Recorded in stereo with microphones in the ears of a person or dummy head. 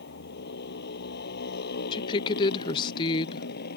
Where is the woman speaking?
30° left (ahead or behind).